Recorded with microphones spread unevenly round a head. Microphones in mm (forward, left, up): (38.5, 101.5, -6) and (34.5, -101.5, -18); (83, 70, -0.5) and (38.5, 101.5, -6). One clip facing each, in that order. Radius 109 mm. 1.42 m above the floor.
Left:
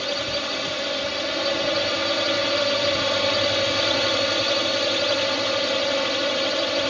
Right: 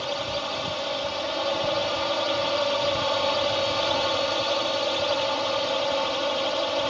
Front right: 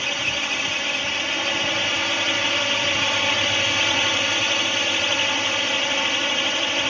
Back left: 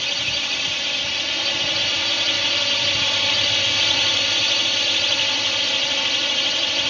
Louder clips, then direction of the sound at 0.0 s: Left 2 dB, front right 1 dB; 25° left.